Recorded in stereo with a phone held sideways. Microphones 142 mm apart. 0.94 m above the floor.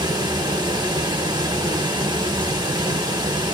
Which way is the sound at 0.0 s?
30° right (ahead or behind).